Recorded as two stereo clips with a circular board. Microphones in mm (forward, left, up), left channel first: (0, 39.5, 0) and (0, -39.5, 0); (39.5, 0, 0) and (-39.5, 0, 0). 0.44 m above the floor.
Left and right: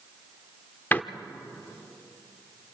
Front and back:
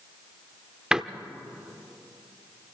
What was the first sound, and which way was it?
A door slam, 110° left.